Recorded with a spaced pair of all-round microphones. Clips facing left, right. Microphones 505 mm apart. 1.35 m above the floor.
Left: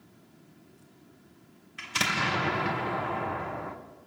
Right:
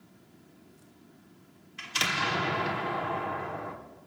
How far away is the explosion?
About 2 m.